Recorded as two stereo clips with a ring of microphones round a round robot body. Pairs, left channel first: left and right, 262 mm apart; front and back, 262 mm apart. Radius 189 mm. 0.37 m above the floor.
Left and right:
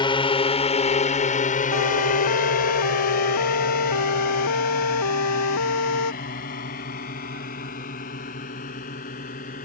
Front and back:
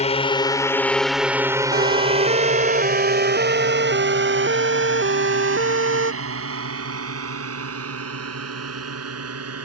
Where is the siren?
125° left; by 6.1 s 140° left.